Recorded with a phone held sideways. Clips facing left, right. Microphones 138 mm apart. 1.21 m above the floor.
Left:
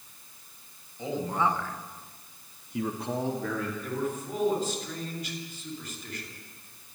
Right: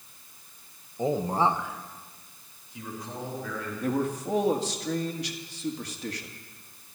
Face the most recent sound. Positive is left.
turn(degrees=-80)